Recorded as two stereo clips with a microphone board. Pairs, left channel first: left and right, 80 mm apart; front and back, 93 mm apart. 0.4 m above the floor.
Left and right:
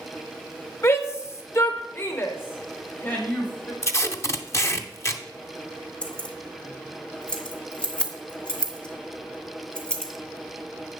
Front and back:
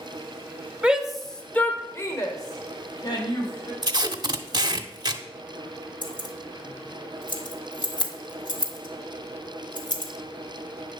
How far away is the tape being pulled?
About 0.6 m.